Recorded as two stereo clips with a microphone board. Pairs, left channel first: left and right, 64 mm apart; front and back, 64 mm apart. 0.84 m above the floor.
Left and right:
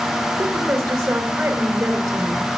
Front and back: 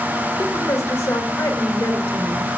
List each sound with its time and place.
0.4 s a woman speaking: 50° right, 2.0 m